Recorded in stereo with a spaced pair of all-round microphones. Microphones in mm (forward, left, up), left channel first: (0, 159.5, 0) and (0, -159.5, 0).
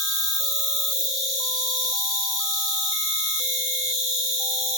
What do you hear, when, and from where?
0.0 s an insect: 80° left, 6.5 m